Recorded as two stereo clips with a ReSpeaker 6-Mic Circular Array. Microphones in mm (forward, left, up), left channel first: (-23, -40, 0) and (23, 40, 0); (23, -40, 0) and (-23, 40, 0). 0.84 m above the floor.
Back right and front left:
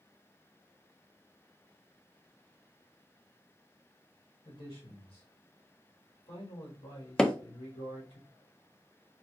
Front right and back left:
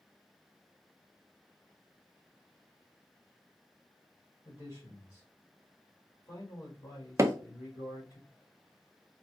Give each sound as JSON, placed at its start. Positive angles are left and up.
{"t": 4.4, "sound": "a man speaking", "azimuth_deg": -115, "distance_m": 2.5}
{"t": 7.2, "sound": "hammering", "azimuth_deg": 165, "distance_m": 0.5}